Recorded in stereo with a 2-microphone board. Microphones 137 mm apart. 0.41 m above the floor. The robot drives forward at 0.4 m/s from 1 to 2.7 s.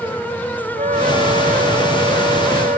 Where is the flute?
75° right (ahead or behind); by 2.8 s 85° right.